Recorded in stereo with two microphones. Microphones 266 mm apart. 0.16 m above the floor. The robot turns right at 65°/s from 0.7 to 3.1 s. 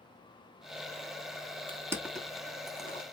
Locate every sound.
1.7 s crushing: 20° right (ahead or behind), 0.9 m; by 3.0 s 35° left (ahead or behind), 0.9 m